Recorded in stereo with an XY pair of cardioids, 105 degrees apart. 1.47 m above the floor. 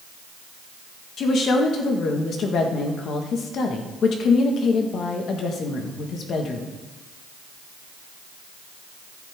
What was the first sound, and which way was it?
A woman speaking, 60° left.